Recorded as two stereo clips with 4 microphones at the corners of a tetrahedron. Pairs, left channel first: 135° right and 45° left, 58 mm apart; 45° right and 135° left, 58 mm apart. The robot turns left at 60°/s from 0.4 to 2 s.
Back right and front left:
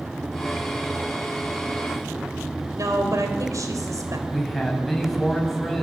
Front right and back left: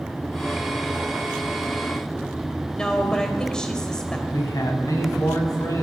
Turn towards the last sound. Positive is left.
turn(degrees=-50)